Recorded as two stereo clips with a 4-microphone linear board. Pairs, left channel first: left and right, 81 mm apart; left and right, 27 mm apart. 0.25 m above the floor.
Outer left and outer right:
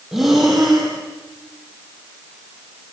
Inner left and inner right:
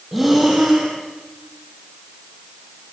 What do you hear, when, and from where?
0.1 s breathing: 5° right (ahead or behind), 7 m